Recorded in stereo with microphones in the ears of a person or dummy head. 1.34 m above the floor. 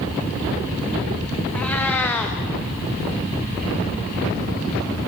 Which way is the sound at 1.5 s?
10° left (ahead or behind).